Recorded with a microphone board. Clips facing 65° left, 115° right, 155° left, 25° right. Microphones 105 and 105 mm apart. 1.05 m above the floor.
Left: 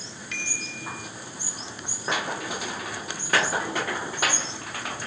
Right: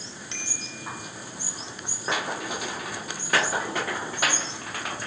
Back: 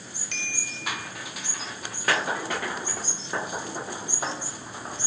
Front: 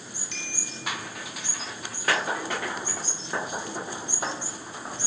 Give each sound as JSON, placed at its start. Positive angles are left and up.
{"t": 0.3, "sound": "a bicycle bell", "azimuth_deg": -175, "distance_m": 4.0}